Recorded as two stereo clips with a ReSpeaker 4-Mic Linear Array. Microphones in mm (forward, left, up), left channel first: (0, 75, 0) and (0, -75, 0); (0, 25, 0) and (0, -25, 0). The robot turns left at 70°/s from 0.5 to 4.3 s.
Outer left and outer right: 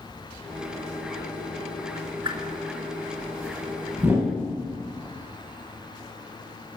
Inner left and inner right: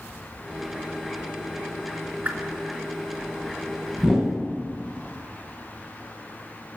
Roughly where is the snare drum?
No snare drum in this recording.